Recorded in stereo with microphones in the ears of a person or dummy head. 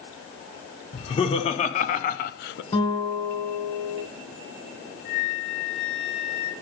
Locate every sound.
0.9 s laughter: 30° left (ahead or behind), 1.7 m; by 2.6 s 65° left (ahead or behind), 0.7 m
2.7 s a guitar: 30° left (ahead or behind), 3 m
5.0 s a flute: 50° left (ahead or behind), 5 m